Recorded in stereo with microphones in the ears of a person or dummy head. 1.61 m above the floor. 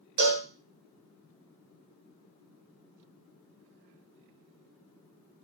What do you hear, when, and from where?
0.2 s a cowbell: 45° right (ahead or behind), 0.8 m